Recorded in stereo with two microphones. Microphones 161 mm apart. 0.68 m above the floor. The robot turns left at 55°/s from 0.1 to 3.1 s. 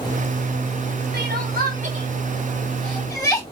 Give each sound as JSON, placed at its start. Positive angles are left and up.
{"t": 1.1, "sound": "crying", "side_deg": -80, "distance_m": 4.0}